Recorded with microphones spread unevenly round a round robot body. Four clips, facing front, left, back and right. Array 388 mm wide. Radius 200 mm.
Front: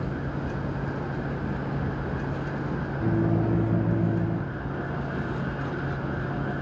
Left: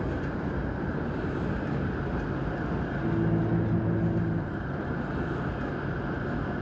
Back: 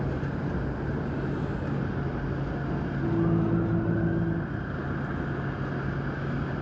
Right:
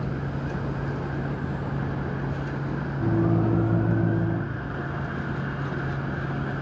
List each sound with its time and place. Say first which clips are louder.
3.0 s a microwave: right 5 dB, front 1 dB; 90° right, 0.6 m